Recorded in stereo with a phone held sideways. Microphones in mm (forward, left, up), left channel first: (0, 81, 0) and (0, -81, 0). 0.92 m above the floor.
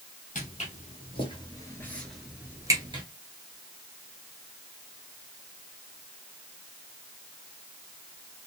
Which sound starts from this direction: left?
Footsteps, at 0.3 s.